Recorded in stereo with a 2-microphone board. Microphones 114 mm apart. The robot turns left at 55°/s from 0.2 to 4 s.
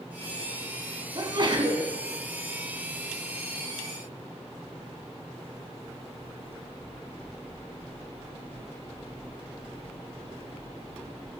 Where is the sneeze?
55° right, 1.3 m; by 1.9 s 95° right, 1.3 m.